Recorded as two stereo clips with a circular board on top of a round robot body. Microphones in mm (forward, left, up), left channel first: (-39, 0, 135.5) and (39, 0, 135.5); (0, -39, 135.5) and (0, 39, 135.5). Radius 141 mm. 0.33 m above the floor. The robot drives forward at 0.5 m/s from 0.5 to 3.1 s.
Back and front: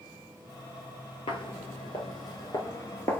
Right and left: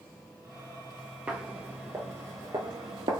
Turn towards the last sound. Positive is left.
turn(degrees=115)